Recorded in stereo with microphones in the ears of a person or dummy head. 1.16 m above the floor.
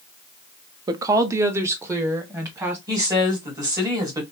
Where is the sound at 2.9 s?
20° right (ahead or behind), 1.6 m.